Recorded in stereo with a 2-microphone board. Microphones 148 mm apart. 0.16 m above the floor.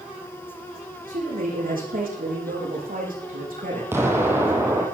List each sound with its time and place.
1.1 s a man speaking: 80° right, 8 m
3.9 s an explosion: 15° right (ahead or behind), 3 m